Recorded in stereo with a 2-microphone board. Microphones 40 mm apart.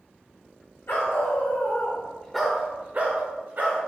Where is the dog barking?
75° left (ahead or behind), 1.3 m; by 3.8 s 55° right (ahead or behind), 1.4 m.